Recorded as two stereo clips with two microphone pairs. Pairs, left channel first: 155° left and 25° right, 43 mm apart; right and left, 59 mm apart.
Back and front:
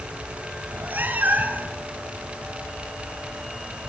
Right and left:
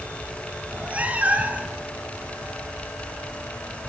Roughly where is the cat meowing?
Ahead left.